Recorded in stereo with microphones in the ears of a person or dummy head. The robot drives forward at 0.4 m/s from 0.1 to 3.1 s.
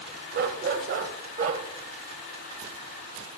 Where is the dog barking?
45° right (ahead or behind), 1.2 m; by 1.6 s 40° right (ahead or behind), 1.4 m.